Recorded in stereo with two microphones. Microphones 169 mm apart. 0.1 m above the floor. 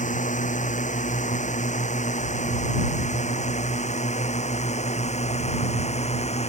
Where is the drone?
50° left (ahead or behind); by 6.5 s 40° left (ahead or behind).